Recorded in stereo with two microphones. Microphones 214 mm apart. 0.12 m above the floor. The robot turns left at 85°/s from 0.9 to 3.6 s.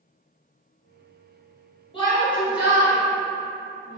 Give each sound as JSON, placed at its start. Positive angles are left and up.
{"t": 1.9, "sound": "a shout", "side_deg": 25, "distance_m": 1.3}